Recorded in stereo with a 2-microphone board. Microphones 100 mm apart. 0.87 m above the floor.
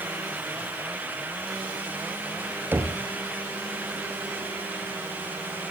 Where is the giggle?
No giggle in this recording.